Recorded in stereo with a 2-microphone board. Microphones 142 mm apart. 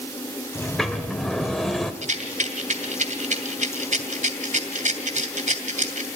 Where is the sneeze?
I don't hear a sneeze.